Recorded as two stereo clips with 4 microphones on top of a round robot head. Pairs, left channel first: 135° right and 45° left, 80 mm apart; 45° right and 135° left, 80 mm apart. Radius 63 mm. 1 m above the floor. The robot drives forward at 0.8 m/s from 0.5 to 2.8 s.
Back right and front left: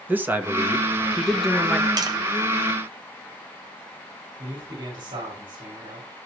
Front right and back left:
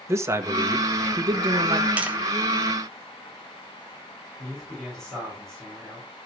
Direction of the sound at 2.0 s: 65° left.